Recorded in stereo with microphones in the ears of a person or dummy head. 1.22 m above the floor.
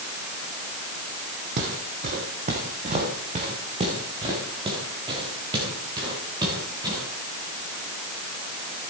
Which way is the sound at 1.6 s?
55° right (ahead or behind).